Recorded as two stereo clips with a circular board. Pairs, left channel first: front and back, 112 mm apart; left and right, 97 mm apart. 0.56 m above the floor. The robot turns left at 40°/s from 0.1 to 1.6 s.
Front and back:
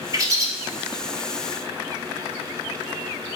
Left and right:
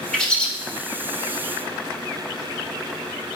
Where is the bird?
170° left, 0.9 m; by 0.5 s 155° left, 0.9 m.